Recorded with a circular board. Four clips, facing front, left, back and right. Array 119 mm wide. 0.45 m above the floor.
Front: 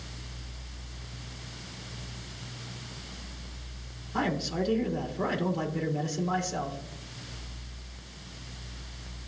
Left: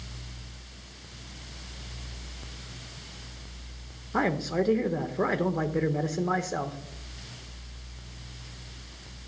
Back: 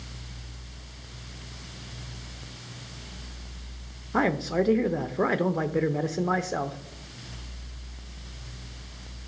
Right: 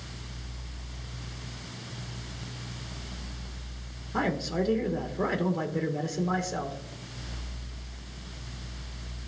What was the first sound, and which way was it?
A man speaking, 160° left.